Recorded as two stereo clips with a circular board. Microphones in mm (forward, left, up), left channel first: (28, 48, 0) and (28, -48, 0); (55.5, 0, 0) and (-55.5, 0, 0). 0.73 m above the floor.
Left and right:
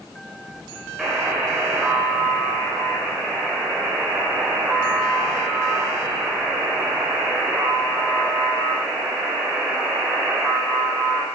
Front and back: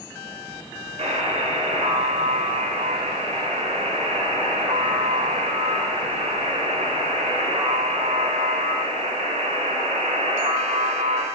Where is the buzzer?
175° right, 3 m.